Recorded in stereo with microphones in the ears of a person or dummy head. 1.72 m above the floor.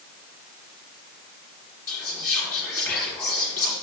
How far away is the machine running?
No machine running in this recording.